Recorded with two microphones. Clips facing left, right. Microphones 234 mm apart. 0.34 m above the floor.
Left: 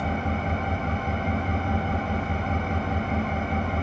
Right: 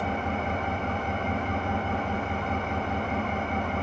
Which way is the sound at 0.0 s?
40° left (ahead or behind).